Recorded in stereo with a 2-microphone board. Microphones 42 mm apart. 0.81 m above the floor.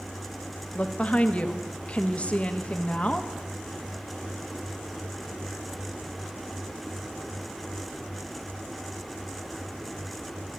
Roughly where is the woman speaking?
Left.